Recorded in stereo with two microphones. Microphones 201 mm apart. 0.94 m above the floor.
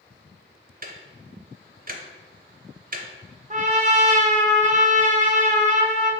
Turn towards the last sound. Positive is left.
turn(degrees=-40)  # may be behind; listen again after turning